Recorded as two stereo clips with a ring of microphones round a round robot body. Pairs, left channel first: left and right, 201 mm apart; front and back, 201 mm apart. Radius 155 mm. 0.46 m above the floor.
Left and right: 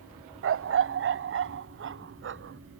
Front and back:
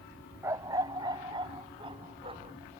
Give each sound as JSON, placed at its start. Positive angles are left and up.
{"t": 0.4, "sound": "a dog barking", "azimuth_deg": -100}